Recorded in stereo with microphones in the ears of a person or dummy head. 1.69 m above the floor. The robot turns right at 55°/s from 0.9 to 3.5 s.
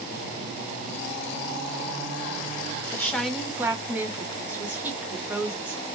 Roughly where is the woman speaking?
Behind.